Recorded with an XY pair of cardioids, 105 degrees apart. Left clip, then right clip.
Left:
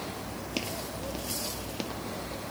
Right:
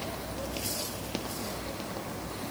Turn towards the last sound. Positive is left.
No sound to turn to.